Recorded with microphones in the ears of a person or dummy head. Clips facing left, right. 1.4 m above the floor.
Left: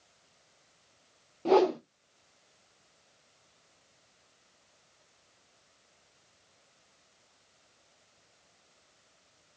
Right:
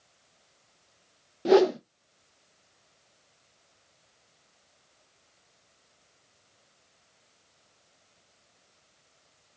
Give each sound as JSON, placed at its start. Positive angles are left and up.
{"t": 1.4, "sound": "a whoosh", "side_deg": -20, "distance_m": 0.7}